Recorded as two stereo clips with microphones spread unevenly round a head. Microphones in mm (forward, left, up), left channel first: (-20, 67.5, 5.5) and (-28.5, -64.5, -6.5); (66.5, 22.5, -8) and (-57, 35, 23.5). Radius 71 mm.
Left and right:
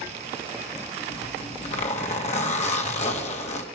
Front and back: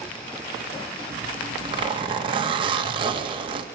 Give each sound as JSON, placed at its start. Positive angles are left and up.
{"t": 1.1, "sound": "a zipper", "azimuth_deg": 125, "distance_m": 2.0}